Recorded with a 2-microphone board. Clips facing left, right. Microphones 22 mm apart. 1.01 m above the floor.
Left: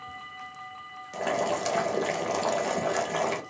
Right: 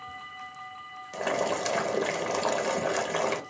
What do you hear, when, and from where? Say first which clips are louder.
1.1 s boiling: left 1 dB; 5° right (ahead or behind), 0.7 m